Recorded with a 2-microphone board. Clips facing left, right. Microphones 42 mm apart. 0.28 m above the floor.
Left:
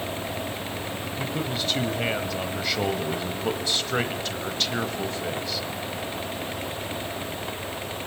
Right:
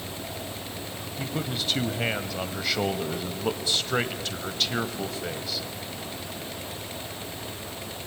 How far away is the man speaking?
About 1.3 m.